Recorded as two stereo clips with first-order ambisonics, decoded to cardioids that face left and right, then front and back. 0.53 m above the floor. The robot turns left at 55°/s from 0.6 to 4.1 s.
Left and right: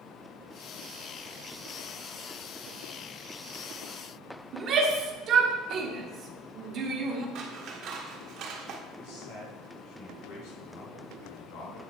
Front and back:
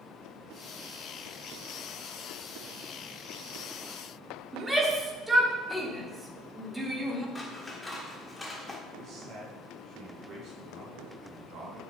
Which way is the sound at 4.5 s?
105° right.